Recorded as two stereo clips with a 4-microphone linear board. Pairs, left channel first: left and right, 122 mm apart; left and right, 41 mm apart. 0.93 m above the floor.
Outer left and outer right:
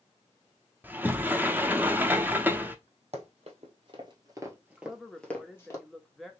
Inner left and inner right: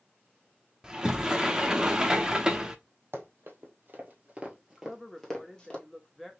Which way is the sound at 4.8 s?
Centre (ahead or behind).